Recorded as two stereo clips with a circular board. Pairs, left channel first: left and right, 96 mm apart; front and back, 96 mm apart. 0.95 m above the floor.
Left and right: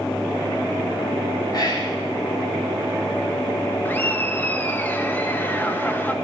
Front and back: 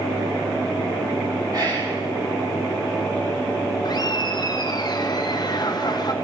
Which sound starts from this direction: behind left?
Whispering, at 1.5 s.